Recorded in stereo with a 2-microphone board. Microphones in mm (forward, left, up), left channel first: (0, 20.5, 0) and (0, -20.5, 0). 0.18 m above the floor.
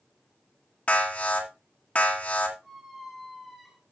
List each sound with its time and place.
0.9 s an alarm: 35° left (ahead or behind), 1.9 m
2.6 s a squeak: 5° right (ahead or behind), 1.2 m